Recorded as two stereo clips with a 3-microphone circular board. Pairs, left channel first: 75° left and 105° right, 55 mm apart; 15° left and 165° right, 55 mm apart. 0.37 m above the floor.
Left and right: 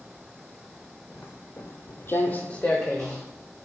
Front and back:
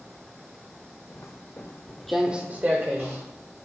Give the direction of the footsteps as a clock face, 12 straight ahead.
11 o'clock.